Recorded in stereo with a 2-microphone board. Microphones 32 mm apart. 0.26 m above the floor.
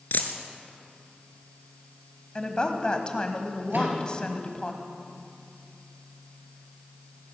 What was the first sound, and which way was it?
A dropped coin, 75° left (ahead or behind).